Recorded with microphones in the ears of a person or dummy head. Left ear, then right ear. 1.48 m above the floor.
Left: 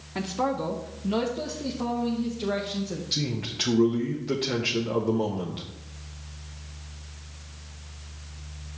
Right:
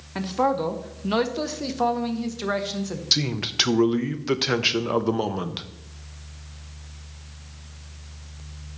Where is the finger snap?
I don't hear a finger snap.